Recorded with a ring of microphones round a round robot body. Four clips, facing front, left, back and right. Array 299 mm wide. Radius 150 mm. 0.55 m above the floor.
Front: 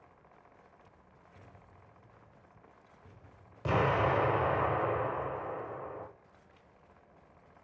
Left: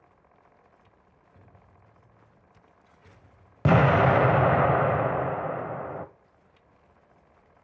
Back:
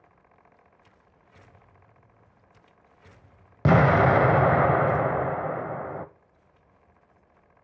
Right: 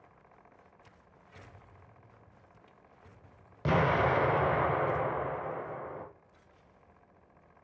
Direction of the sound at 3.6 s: 145° left.